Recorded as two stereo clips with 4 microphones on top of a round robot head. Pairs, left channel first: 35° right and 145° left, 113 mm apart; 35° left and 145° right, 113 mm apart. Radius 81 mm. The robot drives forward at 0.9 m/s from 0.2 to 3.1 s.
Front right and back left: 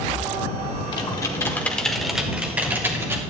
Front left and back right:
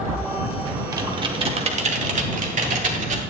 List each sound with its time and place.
0.9 s typing on a keyboard: 85° right, 1.3 m; by 3.2 s 145° right, 2 m